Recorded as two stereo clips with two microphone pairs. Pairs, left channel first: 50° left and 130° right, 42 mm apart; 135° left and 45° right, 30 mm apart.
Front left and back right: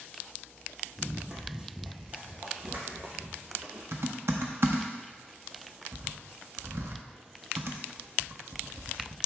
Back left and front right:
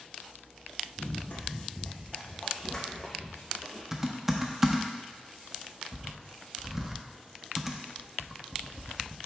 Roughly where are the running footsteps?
Behind left.